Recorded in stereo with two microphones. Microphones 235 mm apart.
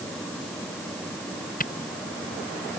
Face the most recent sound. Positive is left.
turn(degrees=35)  # may be behind; listen again after turning